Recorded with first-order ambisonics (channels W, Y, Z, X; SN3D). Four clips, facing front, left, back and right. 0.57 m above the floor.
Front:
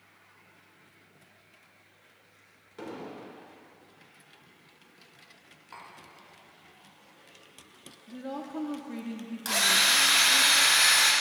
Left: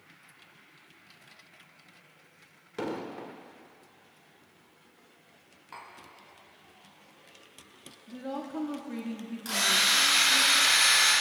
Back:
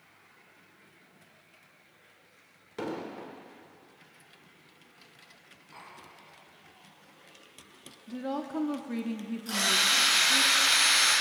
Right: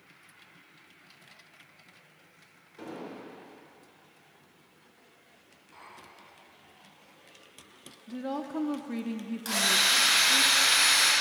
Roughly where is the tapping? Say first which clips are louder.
Left 5 dB, front 2 dB; ahead left.